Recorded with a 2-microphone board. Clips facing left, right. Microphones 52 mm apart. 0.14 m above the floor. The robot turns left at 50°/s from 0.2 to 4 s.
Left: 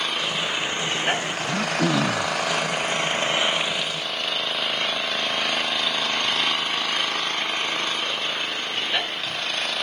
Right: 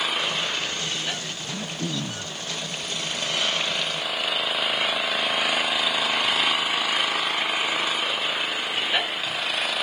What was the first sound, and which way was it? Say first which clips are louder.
An engine running: even; 175° right.